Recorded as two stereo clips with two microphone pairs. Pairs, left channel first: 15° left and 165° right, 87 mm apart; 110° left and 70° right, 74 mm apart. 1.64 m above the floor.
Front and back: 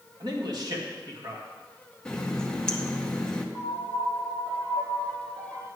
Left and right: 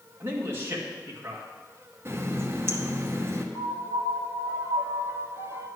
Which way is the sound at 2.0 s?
70° right.